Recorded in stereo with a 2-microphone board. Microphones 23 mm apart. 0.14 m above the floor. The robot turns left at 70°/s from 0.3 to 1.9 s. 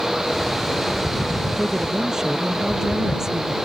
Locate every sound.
1.6 s a woman speaking: centre (ahead or behind); by 3.6 s 25° right (ahead or behind)